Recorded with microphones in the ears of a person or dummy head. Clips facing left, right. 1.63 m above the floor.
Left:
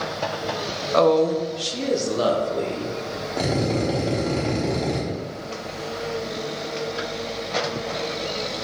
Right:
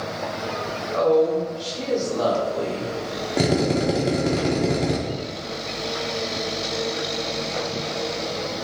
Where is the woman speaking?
80° left, 0.8 m; by 3.3 s 35° left (ahead or behind), 2.5 m.